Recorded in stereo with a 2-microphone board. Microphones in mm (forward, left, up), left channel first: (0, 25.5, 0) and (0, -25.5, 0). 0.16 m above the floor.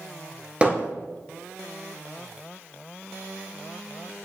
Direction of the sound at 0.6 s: 20° right (ahead or behind).